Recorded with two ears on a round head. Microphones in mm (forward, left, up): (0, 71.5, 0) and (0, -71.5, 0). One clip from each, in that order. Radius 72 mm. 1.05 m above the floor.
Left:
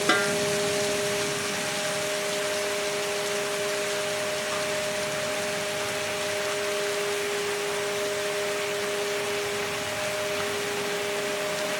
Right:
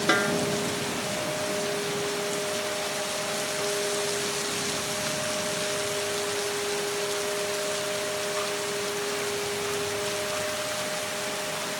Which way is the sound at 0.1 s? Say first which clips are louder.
Even; 10° left (ahead or behind).